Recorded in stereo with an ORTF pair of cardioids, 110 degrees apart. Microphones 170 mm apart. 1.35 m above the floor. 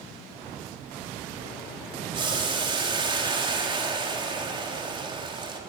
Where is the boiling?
30° right, 3 m.